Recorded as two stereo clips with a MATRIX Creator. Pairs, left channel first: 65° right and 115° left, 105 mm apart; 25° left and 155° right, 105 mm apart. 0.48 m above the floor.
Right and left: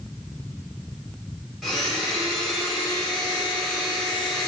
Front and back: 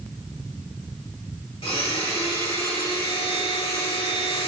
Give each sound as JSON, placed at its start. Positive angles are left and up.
{"t": 1.6, "sound": "a blender", "azimuth_deg": 20, "distance_m": 1.6}